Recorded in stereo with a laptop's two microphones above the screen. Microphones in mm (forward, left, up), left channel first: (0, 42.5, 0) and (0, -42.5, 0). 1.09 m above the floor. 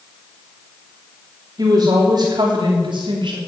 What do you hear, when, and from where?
1.6 s a woman speaking: 50° right (ahead or behind), 3 m; by 3.4 s 75° right (ahead or behind), 3 m